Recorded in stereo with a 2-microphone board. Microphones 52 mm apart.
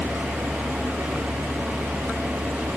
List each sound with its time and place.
0.0 s a vehicle: 55° right (ahead or behind)